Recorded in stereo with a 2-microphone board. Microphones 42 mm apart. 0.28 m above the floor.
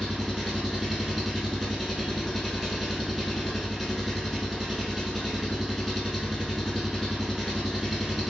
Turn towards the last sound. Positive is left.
turn(degrees=0)  # may be behind; listen again after turning